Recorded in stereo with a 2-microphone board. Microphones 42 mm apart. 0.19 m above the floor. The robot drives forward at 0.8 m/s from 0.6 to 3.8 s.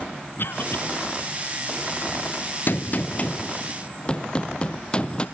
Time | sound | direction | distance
0.4 | a cough | 60° left (ahead or behind) | 2.5 m
2.7 | a gunshot | 50° left (ahead or behind) | 0.7 m